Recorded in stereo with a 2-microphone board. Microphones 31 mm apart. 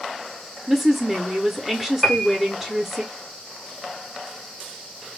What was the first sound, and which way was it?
A woman speaking, 10° right (ahead or behind).